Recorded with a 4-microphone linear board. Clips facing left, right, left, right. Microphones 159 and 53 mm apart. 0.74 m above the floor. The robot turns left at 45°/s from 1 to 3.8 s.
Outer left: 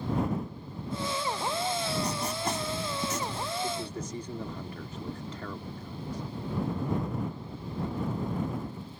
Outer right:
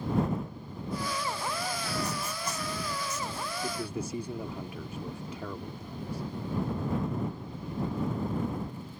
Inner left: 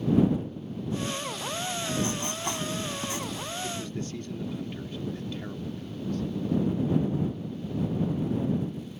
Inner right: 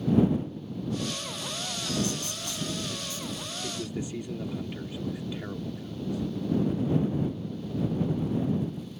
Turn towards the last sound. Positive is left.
turn(degrees=-10)  # may be behind; listen again after turning